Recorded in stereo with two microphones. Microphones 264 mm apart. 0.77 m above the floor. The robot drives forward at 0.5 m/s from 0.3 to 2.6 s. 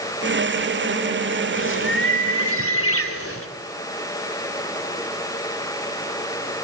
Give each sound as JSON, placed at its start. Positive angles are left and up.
{"t": 1.5, "sound": "a bird", "side_deg": 50, "distance_m": 3.0}